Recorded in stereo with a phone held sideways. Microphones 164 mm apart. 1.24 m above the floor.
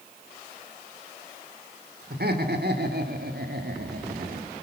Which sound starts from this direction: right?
Laughter, at 2.1 s.